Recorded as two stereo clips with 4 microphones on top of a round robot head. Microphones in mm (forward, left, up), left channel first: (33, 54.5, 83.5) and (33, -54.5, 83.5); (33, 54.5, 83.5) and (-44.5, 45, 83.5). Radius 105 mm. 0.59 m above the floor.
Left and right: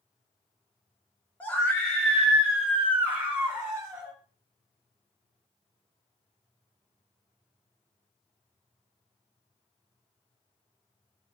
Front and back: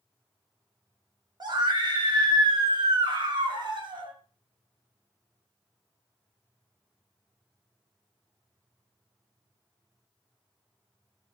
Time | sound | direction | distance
1.4 | a scream | 165° left | 3.5 m